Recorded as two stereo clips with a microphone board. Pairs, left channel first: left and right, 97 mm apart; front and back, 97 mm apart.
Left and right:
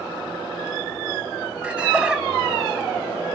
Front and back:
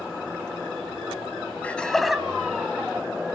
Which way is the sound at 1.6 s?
40° right.